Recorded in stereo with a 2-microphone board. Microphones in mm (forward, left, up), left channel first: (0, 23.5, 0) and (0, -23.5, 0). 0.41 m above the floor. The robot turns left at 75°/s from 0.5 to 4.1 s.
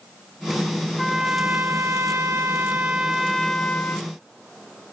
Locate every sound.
1.0 s a trumpet: straight ahead; by 4.1 s 125° left